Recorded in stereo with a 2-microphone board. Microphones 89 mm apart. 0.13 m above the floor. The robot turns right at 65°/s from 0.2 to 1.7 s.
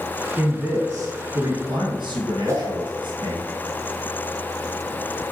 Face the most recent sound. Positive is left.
turn(degrees=-35)  # may be behind; listen again after turning